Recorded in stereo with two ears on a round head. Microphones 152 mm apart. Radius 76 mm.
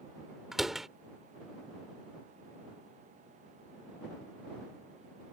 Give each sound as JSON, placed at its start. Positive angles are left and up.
{"t": 0.5, "sound": "a door slam", "side_deg": 0}